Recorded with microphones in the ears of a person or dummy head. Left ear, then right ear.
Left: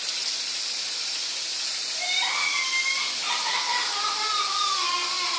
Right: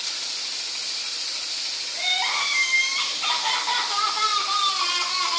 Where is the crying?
35° right (ahead or behind), 1.5 m.